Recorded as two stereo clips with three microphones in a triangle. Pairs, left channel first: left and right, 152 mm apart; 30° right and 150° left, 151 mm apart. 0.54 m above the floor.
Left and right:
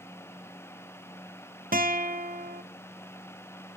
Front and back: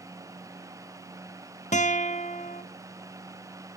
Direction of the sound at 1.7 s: 70° right.